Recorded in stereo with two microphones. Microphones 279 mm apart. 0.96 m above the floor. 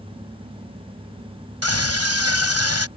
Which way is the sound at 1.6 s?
65° right (ahead or behind).